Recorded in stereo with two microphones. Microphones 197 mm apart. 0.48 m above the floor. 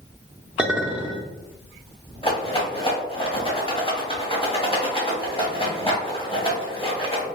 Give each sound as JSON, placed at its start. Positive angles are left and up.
{"t": 0.6, "sound": "a clink", "side_deg": -5, "distance_m": 0.8}
{"t": 2.2, "sound": "a rattle", "side_deg": 25, "distance_m": 1.0}